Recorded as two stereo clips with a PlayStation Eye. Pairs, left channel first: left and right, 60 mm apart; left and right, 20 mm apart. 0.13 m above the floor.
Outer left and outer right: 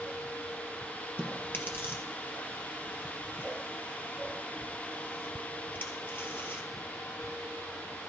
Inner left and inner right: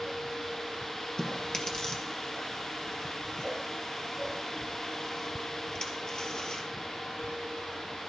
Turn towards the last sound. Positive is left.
turn(degrees=40)  # may be behind; listen again after turning